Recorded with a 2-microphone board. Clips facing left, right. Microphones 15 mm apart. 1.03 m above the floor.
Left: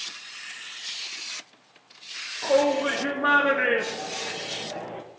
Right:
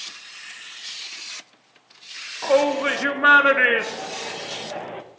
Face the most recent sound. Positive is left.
turn(degrees=-35)  # may be behind; listen again after turning